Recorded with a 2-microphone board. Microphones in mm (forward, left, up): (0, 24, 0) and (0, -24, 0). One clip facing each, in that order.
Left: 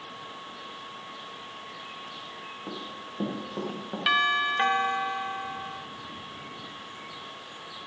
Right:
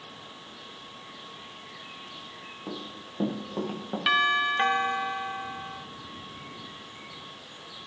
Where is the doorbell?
Centre (ahead or behind), 0.5 m.